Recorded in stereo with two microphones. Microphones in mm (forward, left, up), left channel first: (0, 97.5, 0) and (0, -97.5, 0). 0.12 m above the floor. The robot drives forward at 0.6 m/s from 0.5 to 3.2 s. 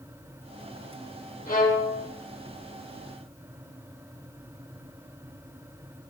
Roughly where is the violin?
Left.